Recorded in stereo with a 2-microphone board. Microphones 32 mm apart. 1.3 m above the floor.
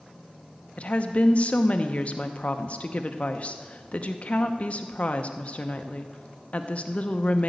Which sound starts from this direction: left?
A woman speaking, at 0.8 s.